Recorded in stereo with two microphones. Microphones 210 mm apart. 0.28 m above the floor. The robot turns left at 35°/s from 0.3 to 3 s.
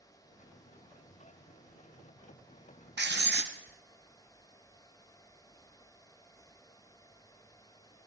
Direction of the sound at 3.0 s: 55° right (ahead or behind).